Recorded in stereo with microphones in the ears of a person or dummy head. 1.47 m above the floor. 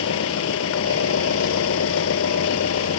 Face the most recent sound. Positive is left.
turn(degrees=85)